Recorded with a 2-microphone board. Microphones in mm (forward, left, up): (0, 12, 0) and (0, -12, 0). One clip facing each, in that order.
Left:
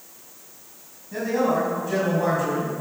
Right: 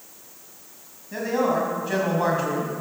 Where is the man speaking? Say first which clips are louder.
Left 1 dB; 25° right (ahead or behind), 5.5 m; by 2.7 s 50° right (ahead or behind), 5.5 m.